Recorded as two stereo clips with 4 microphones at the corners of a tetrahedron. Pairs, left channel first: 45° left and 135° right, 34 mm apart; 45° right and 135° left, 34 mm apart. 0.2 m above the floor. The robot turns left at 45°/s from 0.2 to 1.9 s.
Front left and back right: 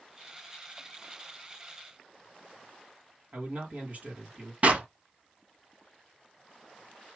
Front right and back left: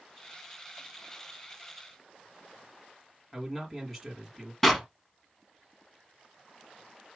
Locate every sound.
3.3 s a man speaking: 130° right, 1.9 m
4.6 s a clap: 125° right, 1.0 m